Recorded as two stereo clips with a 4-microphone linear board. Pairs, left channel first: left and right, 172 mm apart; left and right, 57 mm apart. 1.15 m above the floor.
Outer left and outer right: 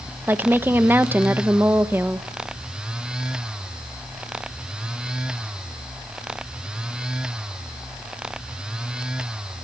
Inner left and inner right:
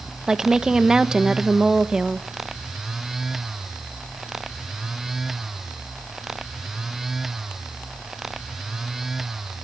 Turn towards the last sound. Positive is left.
turn(degrees=-10)  # may be behind; listen again after turning